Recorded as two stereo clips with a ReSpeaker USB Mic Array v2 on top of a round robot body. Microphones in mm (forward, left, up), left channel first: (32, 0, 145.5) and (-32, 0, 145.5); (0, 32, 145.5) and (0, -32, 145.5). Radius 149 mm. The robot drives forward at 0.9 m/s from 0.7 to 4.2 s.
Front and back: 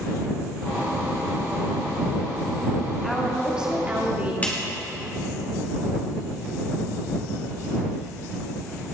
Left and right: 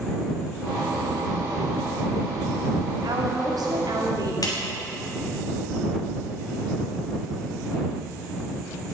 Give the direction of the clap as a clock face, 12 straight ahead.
10 o'clock.